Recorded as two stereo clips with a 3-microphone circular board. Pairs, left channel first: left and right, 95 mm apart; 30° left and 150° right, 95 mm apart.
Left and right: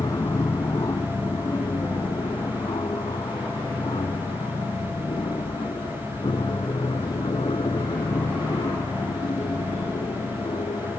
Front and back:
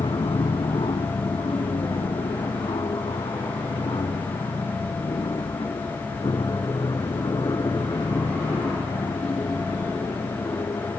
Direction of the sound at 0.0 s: 45° left.